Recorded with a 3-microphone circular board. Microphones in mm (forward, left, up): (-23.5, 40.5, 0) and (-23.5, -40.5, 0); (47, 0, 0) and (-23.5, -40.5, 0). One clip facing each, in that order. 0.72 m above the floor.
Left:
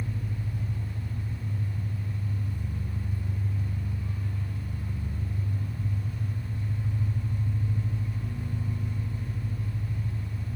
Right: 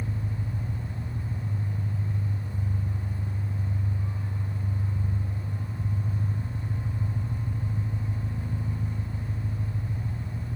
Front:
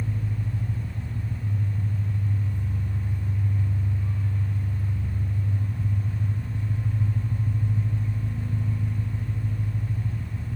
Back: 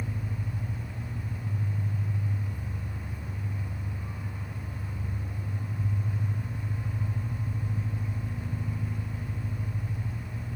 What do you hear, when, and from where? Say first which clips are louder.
0.0 s an engine running: right 1 dB, front 4 dB; 65° right, 7.5 m